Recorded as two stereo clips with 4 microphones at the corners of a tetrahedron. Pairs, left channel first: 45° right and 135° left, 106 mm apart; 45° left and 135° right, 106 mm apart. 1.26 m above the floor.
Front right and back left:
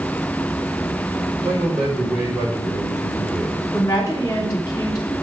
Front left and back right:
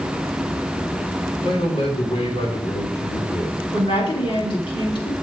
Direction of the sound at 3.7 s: 15° left.